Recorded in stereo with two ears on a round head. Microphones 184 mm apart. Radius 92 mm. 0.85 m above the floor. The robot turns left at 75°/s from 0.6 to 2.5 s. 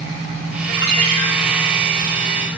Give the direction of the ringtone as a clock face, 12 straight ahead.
12 o'clock.